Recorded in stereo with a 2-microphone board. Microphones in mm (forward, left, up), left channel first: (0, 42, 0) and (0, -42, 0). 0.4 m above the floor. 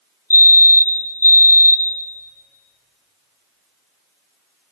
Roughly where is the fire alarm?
Left.